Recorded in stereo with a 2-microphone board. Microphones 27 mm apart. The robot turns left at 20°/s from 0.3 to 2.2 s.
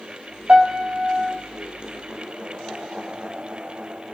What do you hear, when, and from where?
0.5 s a piano: 60° right (ahead or behind), 2.5 m; by 1.4 s 55° right (ahead or behind), 2.5 m